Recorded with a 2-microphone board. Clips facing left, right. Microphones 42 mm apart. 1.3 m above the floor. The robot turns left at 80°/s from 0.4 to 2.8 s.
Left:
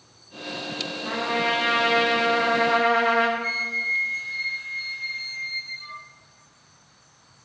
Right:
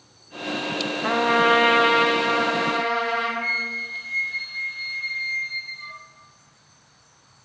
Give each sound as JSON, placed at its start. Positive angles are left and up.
{"t": 1.0, "sound": "a trumpet", "azimuth_deg": -90, "distance_m": 1.0}
{"t": 3.4, "sound": "a flute", "side_deg": -25, "distance_m": 1.1}